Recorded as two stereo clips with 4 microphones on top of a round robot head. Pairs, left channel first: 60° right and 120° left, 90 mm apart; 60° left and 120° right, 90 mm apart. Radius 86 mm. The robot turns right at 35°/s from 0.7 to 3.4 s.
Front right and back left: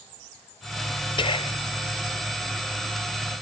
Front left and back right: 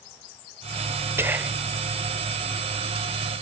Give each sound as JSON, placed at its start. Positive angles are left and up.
{"t": 1.2, "sound": "whispering", "azimuth_deg": -60}